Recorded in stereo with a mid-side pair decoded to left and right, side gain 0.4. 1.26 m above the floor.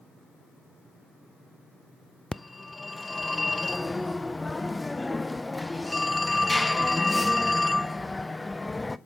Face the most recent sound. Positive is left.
turn(degrees=15)